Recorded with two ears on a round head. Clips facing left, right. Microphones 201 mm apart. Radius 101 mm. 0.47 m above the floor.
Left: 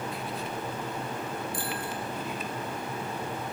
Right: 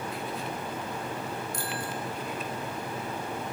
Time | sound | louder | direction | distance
1.5 | a bicycle bell | left 1 dB | 35° right (ahead or behind) | 4.5 m